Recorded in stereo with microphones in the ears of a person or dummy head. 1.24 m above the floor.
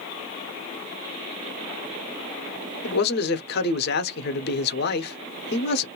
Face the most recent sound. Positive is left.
turn(degrees=55)  # may be behind; listen again after turning